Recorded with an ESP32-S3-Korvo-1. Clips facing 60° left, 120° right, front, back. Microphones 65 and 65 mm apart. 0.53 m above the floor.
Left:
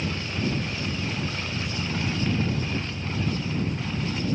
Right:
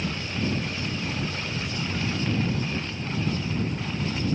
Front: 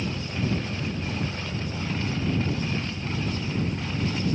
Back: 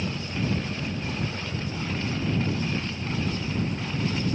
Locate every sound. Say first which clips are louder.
0.0 s an engine running: even, even; 85° left